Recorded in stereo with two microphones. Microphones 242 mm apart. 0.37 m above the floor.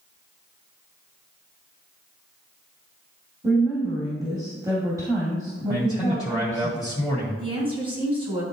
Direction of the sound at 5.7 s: 5° right (ahead or behind).